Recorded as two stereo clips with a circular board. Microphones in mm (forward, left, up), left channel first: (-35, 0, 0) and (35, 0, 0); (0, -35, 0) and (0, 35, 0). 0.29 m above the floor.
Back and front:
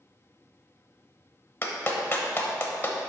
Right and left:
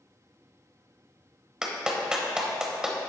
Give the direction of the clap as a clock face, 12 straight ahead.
7 o'clock.